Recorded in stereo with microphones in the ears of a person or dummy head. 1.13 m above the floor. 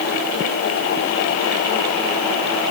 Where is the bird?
No bird in this recording.